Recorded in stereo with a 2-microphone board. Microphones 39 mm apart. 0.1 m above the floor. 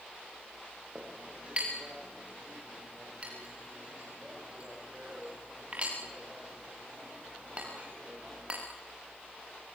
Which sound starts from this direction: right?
A clink, at 0.9 s.